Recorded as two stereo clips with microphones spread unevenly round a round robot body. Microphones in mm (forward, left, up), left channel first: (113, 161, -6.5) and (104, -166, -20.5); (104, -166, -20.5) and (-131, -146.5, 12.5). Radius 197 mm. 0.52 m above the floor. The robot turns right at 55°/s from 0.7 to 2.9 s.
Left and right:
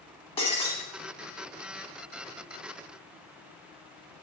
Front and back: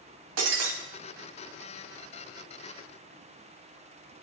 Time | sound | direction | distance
0.4 | breaking glass | 165° left | 1.0 m